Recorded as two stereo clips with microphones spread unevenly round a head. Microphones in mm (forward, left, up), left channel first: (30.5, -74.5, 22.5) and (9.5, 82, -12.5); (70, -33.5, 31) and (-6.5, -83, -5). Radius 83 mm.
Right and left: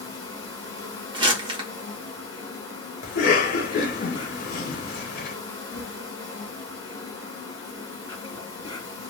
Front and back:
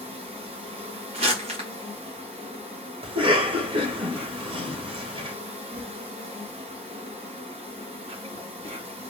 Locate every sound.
0.0 s an insect: 135° right, 1.9 m
1.1 s crumpling: 165° left, 1.0 m
3.0 s a cough: 120° right, 1.2 m